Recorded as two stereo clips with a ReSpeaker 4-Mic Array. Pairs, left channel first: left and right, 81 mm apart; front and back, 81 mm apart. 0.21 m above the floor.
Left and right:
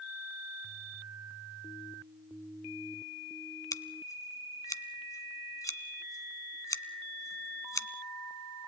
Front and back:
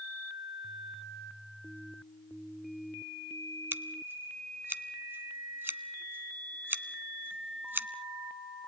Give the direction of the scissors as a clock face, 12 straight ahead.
8 o'clock.